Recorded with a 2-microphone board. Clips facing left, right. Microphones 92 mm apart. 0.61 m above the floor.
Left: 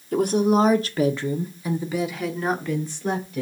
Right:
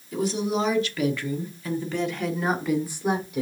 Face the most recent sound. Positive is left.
turn(degrees=-15)  # may be behind; listen again after turning